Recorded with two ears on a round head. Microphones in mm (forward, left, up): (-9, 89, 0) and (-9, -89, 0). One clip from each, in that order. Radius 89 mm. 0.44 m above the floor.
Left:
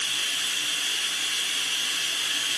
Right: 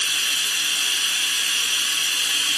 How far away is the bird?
No bird in this recording.